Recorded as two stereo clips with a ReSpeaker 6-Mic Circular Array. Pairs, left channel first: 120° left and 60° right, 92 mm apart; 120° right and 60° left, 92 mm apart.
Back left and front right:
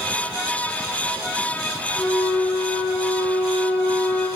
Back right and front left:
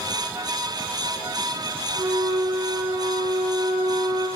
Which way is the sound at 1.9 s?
100° left.